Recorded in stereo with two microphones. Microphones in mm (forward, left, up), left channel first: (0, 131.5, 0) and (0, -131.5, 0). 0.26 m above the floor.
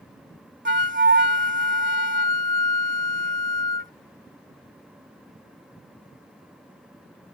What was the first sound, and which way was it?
A flute, 45° right (ahead or behind).